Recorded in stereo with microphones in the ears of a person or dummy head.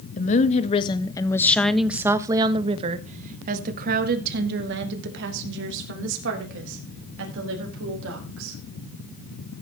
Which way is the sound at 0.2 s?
45° left (ahead or behind).